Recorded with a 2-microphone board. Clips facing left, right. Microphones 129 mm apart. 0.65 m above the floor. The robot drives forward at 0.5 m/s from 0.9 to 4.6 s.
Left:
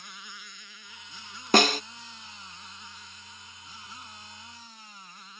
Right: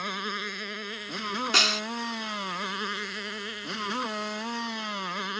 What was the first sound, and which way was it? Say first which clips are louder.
A motorcycle: right 15 dB; 75° right (ahead or behind).